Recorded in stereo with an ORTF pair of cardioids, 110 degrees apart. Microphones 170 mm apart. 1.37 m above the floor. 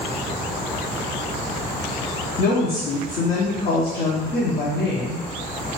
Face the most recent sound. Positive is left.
turn(degrees=55)